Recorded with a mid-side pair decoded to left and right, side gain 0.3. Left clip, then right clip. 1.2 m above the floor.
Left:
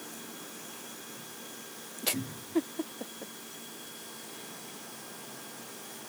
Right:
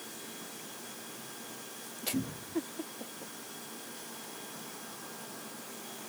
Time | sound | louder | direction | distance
2.1 | a cupboard door | left 3 dB | 50° right | 2.5 m